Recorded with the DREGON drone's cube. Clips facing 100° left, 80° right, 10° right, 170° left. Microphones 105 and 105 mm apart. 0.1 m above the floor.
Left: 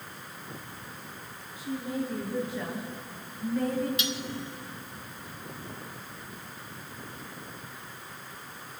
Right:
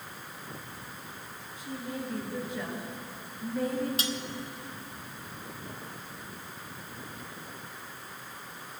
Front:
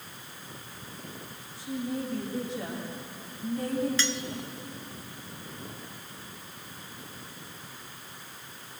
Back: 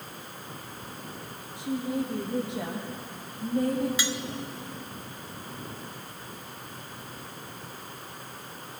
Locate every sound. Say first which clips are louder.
1.6 s a woman speaking: left 5 dB, back 3 dB; straight behind, 7.5 m; by 3.9 s 165° right, 6.5 m
4.0 s cutlery clinking: even, even; 115° right, 1.0 m